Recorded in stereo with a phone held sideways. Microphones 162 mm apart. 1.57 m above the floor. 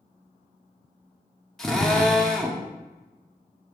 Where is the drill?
Centre (ahead or behind), 1.1 m.